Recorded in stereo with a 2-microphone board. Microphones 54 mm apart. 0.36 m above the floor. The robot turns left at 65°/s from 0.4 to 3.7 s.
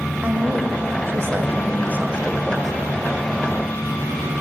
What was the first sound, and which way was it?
A woman speaking, 35° right.